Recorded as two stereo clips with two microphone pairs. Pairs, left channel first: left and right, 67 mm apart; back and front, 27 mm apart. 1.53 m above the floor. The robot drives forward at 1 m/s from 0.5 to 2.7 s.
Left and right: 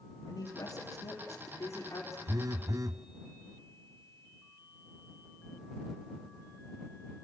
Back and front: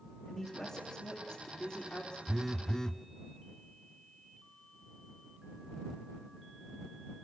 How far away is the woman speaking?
About 3.5 m.